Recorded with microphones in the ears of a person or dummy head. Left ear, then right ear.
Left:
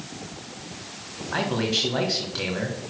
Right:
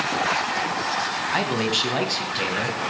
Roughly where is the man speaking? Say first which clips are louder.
Even; right.